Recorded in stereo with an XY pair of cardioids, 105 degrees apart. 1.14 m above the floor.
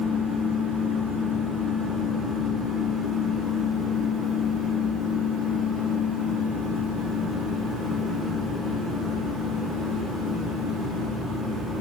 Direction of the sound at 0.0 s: 60° right.